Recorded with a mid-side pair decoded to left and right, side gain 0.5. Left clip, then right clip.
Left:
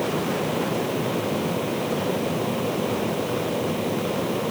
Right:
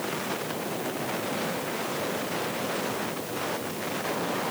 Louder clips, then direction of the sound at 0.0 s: Left 6 dB; 60° left.